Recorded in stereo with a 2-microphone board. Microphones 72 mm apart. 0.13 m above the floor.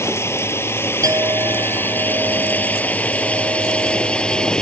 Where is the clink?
60° right (ahead or behind).